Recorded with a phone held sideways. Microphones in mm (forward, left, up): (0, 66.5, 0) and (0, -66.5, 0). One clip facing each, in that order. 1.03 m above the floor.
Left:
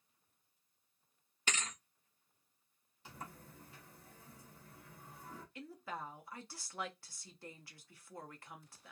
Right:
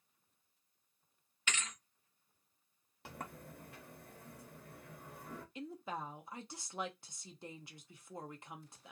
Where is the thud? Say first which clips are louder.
Left 1 dB; 35° left (ahead or behind), 0.6 m.